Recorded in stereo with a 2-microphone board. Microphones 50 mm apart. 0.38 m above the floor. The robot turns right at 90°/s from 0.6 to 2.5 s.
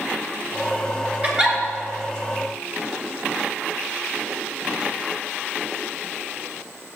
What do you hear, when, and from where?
1.2 s a giggle: 30° right (ahead or behind), 2 m; by 1.6 s centre (ahead or behind), 2 m